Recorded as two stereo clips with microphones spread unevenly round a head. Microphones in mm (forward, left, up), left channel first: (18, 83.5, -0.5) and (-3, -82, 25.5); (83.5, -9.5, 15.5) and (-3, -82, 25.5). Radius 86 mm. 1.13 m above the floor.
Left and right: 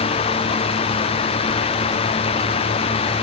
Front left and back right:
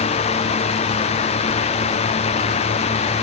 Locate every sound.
Only background noise.